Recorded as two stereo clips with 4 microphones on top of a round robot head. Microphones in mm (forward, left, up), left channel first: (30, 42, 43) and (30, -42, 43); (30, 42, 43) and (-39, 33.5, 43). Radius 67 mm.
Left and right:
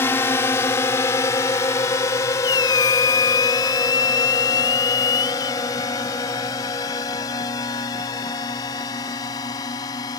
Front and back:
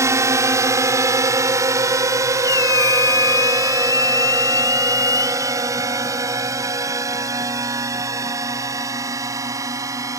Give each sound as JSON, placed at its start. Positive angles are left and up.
{"t": 0.0, "sound": "a drone", "azimuth_deg": 150}
{"t": 2.4, "sound": "a squeak", "azimuth_deg": 50}